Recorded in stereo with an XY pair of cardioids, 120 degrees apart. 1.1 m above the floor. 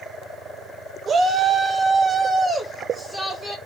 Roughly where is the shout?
Ahead right.